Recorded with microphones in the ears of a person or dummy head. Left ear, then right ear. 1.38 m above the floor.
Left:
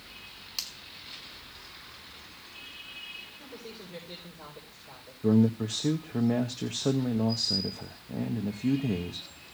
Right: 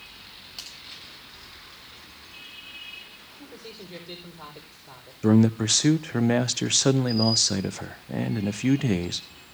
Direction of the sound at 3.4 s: 65° right (ahead or behind).